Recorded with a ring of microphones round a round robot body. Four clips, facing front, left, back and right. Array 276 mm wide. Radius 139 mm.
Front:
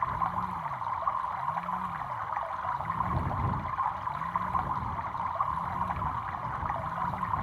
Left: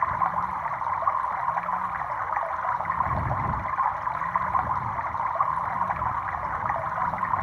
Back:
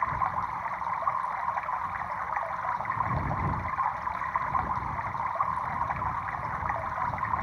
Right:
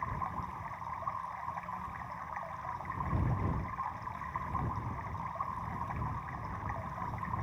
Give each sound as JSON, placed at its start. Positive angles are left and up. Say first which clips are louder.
{"t": 0.0, "sound": "running water", "louder": "left 13 dB, back 2 dB", "azimuth_deg": 100}